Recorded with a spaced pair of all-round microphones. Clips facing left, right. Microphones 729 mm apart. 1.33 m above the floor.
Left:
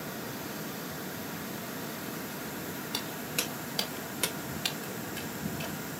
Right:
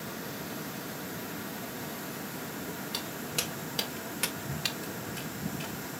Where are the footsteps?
35° right (ahead or behind), 3 m; by 5.8 s 10° left (ahead or behind), 2 m.